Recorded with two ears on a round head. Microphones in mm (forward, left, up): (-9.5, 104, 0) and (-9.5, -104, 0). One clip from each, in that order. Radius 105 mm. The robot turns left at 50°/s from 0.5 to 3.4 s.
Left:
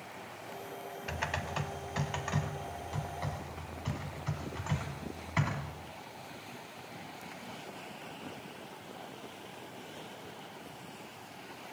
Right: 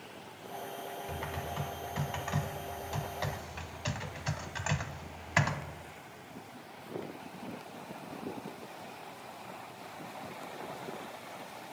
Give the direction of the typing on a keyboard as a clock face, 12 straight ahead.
10 o'clock.